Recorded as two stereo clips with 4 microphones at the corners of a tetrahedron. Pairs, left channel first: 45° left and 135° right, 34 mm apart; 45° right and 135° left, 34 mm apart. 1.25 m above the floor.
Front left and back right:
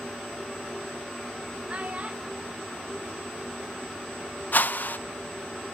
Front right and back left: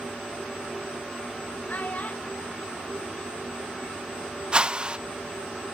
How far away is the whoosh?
About 0.5 m.